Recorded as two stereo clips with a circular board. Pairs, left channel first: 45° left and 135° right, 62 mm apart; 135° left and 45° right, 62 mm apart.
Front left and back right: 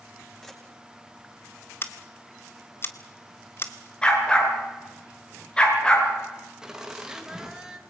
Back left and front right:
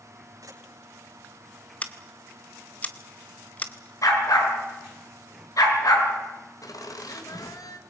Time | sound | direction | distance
0.4 | a camera shutter | 35° right | 7 m
1.8 | scissors | 80° left | 1.4 m
4.0 | a dog barking | 120° left | 5.5 m
6.6 | laughter | 145° left | 2.5 m